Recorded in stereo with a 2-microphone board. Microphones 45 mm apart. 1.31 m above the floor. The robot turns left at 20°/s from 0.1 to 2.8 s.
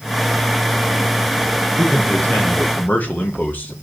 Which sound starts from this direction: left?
A man speaking, at 1.8 s.